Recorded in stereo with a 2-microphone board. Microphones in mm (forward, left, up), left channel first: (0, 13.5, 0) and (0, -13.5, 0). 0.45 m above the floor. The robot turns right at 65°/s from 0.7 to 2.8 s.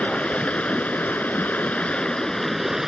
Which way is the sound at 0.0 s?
55° left.